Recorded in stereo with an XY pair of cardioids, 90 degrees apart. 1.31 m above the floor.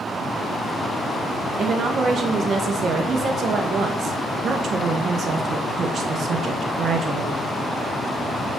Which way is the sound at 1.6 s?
60° right.